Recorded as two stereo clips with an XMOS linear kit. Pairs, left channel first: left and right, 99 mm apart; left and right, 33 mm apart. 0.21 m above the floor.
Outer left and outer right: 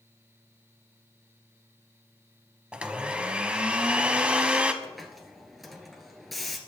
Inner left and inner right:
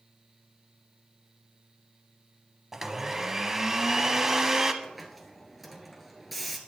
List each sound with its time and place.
2.7 s a blender: 10° right (ahead or behind), 1.0 m
4.8 s a hiss: centre (ahead or behind), 1.7 m